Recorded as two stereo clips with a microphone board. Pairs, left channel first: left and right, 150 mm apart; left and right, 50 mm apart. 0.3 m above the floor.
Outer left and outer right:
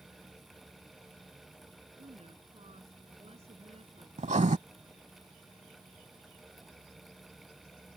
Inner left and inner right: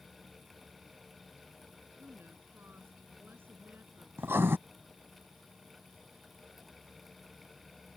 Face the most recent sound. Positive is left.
turn(degrees=-55)  # may be behind; listen again after turning